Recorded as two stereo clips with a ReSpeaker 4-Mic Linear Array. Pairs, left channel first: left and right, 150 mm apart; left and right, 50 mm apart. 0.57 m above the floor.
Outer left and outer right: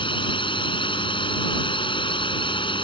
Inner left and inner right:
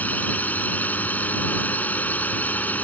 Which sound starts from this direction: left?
A drone, at 0.0 s.